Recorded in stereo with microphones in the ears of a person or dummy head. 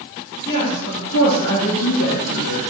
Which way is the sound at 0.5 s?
45° left (ahead or behind).